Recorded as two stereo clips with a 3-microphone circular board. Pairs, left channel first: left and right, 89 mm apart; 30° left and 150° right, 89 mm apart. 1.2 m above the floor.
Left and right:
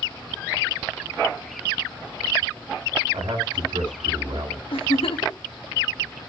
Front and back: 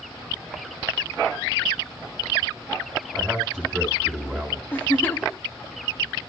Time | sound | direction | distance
3.1 | a man speaking | 60° right | 5.5 m
4.7 | a giggle | 95° left | 1.2 m